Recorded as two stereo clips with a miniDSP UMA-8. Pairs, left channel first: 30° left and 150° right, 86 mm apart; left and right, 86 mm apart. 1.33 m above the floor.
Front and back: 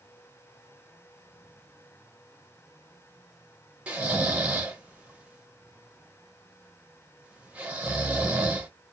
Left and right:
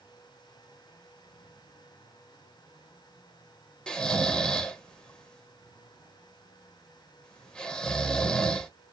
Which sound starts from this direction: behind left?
Snoring, at 3.9 s.